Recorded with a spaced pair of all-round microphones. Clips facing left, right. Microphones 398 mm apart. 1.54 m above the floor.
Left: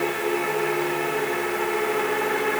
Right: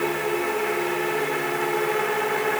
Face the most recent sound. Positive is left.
No sound to turn to.